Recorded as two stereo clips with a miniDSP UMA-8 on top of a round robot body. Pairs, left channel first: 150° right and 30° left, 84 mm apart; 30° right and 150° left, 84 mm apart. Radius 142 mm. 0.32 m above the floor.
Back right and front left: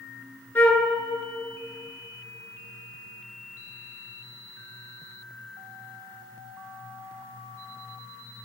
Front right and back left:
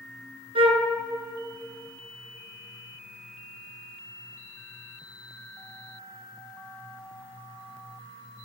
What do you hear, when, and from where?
0.6 s a flute: 140° left, 1.8 m